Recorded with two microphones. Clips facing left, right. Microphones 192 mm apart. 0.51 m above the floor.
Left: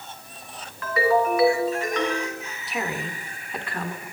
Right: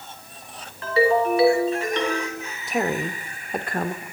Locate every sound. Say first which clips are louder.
0.8 s a ringtone: right 2 dB; 30° right (ahead or behind), 3 m
2.7 s a woman speaking: right 6 dB; 50° right (ahead or behind), 1.1 m